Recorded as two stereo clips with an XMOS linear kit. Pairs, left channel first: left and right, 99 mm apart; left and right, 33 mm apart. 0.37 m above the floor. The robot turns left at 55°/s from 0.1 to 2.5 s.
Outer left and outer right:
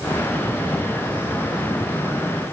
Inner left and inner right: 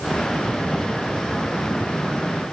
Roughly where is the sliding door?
No sliding door in this recording.